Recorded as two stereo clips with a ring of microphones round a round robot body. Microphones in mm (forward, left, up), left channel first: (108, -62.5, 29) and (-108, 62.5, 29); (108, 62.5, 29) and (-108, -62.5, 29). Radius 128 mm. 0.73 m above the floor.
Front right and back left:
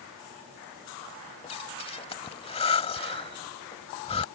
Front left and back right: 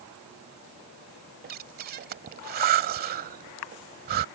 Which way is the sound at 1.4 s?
95° right.